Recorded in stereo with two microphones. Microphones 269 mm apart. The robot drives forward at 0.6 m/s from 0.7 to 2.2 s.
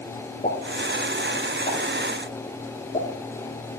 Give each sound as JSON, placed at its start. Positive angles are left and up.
{"t": 0.4, "sound": "a pop", "side_deg": 30, "distance_m": 8.0}